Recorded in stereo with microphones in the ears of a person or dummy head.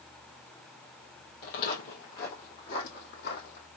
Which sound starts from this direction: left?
Footsteps, at 1.4 s.